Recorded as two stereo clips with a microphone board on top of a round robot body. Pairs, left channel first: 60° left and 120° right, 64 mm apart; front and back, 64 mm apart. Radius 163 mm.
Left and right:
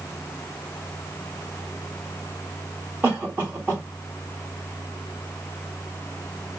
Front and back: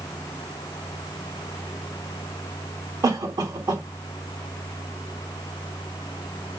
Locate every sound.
3.0 s a cough: 175° left, 3.5 m